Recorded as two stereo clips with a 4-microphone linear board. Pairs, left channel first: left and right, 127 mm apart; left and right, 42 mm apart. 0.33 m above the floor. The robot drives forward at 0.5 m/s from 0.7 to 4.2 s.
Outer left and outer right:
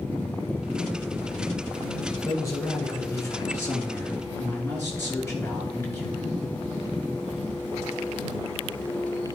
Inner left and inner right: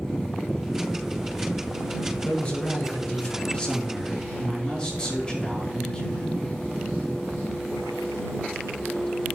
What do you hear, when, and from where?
2.2 s a man speaking: 25° left (ahead or behind), 4 m; by 6.3 s 20° left (ahead or behind), 4.5 m